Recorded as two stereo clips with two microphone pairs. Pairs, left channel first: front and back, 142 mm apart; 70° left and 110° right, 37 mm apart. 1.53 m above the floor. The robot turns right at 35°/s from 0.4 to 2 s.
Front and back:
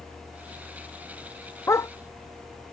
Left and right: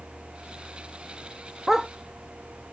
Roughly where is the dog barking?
Ahead right.